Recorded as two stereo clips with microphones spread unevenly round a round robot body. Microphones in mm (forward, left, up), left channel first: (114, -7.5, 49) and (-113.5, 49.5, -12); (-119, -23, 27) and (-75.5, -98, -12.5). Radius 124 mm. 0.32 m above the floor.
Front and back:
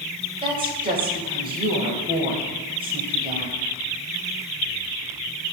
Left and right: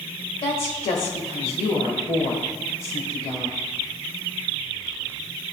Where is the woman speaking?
125° left, 1.1 m.